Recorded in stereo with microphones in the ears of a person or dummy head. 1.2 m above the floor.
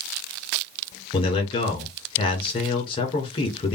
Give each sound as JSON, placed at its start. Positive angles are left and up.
{"t": 1.1, "sound": "a man speaking", "side_deg": 30, "distance_m": 1.9}